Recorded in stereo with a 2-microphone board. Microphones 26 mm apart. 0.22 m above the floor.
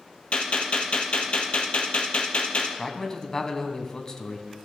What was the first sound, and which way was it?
A gunshot, 45° left (ahead or behind).